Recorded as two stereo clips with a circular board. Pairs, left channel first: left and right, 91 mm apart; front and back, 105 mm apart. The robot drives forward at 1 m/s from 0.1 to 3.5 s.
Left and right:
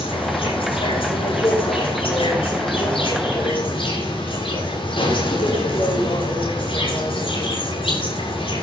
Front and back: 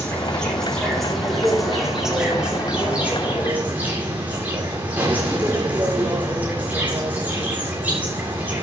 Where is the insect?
80° left, 7.5 m; by 8.6 s 105° left, 7.5 m.